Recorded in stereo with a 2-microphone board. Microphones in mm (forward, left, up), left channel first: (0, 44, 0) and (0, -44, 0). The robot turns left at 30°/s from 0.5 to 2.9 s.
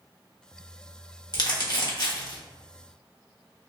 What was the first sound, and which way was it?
Crumpling, 55° left (ahead or behind).